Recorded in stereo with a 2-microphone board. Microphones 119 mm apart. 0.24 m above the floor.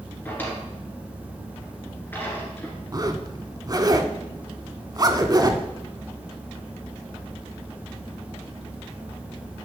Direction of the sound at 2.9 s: 35° right (ahead or behind).